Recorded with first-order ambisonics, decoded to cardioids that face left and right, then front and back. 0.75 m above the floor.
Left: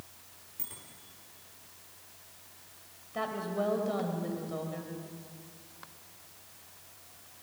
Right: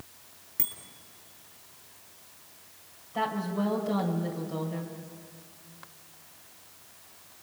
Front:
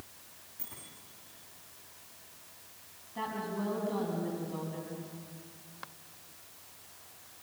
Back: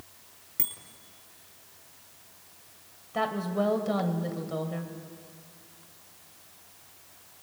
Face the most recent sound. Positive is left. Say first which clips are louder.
# right 3 dB, back 8 dB
turn(degrees=180)